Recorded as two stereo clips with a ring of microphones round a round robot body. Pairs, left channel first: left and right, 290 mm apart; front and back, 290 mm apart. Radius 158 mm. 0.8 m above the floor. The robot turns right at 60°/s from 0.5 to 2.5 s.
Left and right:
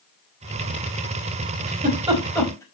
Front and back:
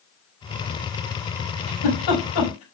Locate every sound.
1.7 s a giggle: 40° right, 5 m; by 2.6 s 10° left, 5 m